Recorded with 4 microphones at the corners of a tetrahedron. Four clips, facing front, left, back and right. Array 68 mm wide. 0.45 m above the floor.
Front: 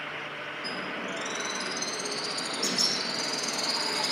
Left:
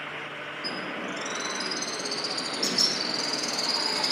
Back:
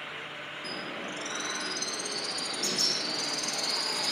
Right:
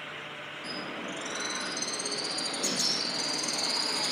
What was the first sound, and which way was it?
A bird, 90° left.